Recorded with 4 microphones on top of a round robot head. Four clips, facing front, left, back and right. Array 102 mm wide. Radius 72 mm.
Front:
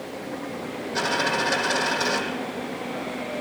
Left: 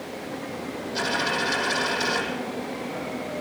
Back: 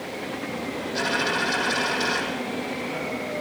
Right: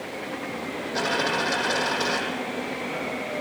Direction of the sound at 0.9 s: 50° right.